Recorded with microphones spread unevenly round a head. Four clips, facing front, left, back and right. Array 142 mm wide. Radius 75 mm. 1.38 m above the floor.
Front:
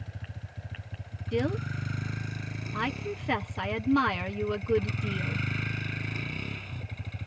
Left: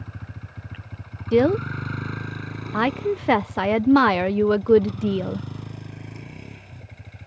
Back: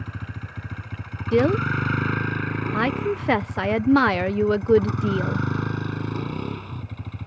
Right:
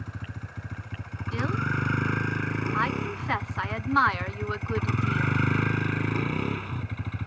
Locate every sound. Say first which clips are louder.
0.0 s a vehicle: right 1 dB, back 9 dB; 175° right; by 7.3 s 135° right
1.3 s a woman speaking: left 11 dB, back 11 dB; 125° left